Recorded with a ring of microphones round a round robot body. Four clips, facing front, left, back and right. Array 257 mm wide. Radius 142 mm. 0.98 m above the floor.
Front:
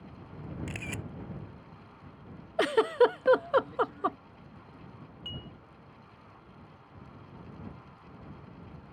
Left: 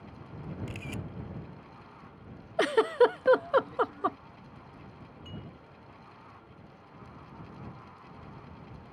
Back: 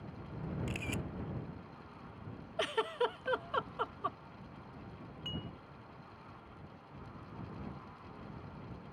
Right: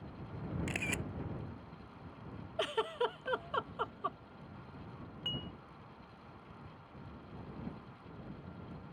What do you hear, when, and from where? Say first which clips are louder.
0.7 s a camera shutter: right 1 dB, even; 70° right
2.6 s a giggle: left 12 dB, front 11 dB; 45° left
5.2 s dishes clattering: right 1 dB, back 1 dB; 100° right